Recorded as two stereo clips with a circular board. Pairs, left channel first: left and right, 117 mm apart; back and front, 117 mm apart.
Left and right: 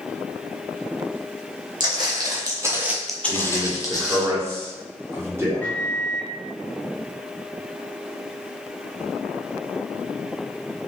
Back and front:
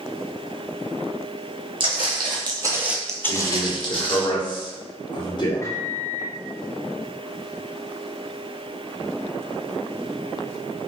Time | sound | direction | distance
1.8 | footsteps | 40° right | 1.3 m
3.3 | a man speaking | 150° right | 0.9 m
5.6 | a microwave | 150° left | 0.6 m